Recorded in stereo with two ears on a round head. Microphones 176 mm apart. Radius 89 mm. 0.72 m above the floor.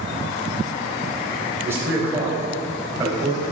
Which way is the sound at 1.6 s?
10° right (ahead or behind).